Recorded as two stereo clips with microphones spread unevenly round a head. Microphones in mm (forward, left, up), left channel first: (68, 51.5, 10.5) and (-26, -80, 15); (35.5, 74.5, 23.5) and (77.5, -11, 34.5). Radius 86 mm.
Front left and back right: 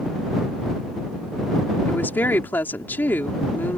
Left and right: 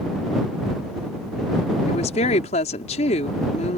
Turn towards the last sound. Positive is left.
turn(degrees=135)